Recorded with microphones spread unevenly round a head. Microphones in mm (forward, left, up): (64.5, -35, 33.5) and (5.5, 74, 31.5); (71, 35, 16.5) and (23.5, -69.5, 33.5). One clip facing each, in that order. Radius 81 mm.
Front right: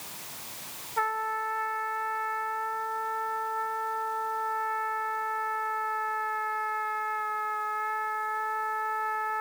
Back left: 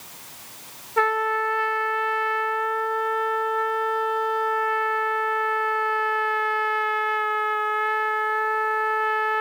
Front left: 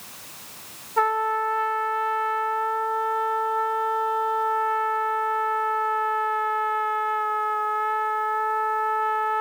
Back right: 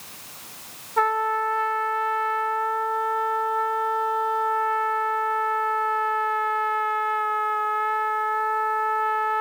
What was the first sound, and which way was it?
A trumpet, 155° left.